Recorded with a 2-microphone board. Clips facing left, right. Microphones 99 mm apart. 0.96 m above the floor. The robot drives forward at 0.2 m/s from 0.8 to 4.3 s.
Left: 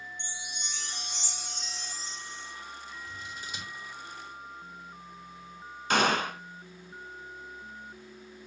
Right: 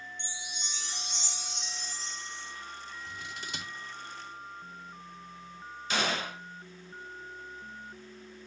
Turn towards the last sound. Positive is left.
turn(degrees=50)  # may be behind; listen again after turning